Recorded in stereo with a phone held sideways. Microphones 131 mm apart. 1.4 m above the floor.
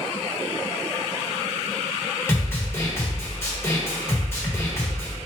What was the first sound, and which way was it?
A snare drum, 20° left (ahead or behind).